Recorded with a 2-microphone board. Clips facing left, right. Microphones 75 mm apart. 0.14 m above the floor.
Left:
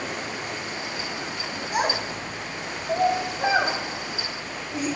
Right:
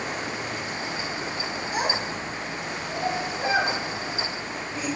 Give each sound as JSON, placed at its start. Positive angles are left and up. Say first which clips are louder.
{"t": 1.7, "sound": "a child speaking", "louder": "left 3 dB", "side_deg": 75, "distance_m": 6.5}